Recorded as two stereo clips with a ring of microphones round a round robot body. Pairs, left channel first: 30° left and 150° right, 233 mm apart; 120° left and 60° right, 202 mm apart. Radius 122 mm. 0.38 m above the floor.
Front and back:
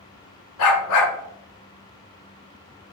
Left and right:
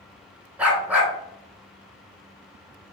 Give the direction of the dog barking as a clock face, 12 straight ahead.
11 o'clock.